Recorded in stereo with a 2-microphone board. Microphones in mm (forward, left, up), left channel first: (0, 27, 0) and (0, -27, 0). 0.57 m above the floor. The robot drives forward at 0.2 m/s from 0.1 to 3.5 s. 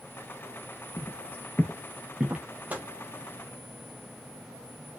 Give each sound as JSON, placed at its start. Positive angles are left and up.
{"t": 1.0, "sound": "footsteps", "side_deg": 50, "distance_m": 0.8}
{"t": 2.7, "sound": "a microwave", "side_deg": -30, "distance_m": 0.7}